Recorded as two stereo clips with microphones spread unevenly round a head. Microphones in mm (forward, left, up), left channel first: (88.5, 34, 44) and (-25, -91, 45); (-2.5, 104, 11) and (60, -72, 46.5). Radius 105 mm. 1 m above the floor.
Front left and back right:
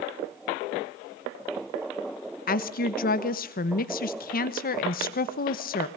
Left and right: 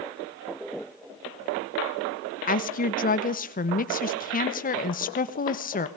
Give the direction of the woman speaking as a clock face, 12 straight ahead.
9 o'clock.